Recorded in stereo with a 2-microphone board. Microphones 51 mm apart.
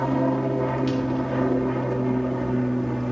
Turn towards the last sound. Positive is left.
turn(degrees=5)  # may be behind; listen again after turning